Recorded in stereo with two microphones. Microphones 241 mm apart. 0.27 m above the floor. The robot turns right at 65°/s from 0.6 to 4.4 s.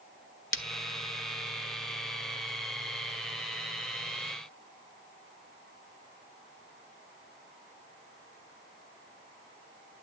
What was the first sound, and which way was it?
Breaking glass, 60° left (ahead or behind).